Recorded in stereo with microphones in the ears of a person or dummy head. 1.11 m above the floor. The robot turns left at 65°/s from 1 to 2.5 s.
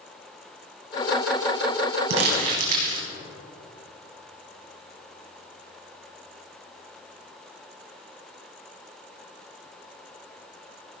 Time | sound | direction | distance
2.1 | crumpling | 70° right (ahead or behind) | 3 m